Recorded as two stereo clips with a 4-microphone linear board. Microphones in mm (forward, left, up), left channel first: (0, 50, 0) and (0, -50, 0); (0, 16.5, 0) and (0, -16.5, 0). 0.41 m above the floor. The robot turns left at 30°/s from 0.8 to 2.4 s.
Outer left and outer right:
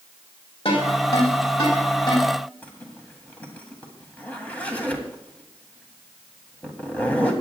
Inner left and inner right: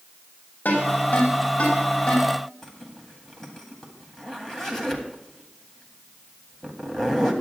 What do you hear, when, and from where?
0.7 s a ringtone: 85° left, 7 m; by 2.3 s 40° left (ahead or behind), 7 m
2.6 s a zipper: 15° left (ahead or behind), 2.0 m